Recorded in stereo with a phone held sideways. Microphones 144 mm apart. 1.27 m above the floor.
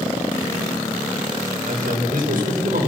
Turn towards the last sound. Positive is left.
turn(degrees=-70)  # may be behind; listen again after turning